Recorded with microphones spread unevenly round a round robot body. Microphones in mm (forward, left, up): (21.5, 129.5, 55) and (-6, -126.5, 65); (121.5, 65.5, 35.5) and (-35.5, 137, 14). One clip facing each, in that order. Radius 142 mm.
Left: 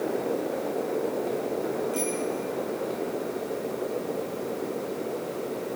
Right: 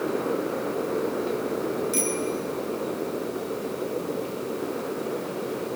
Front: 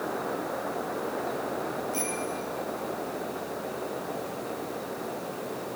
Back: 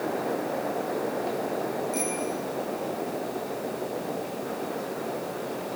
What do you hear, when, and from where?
1.9 s a bicycle bell: 130° right, 7 m